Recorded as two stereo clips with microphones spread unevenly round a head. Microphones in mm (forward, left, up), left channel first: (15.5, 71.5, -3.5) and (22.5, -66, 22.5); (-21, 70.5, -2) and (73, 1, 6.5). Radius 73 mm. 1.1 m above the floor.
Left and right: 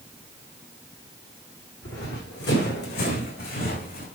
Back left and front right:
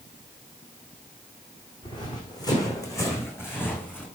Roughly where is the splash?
No splash in this recording.